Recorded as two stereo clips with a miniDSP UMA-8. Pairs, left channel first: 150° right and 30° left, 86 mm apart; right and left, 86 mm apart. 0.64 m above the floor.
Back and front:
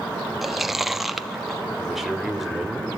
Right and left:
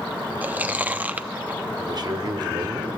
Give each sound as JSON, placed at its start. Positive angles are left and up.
{"t": 0.4, "sound": "chewing", "azimuth_deg": 115, "distance_m": 0.7}
{"t": 1.8, "sound": "a man speaking", "azimuth_deg": 120, "distance_m": 2.0}